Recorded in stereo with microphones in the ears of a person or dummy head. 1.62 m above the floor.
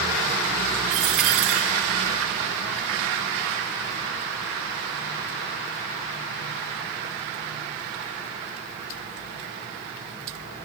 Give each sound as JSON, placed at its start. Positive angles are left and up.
{"t": 0.9, "sound": "a dropped coin", "side_deg": -5, "distance_m": 1.3}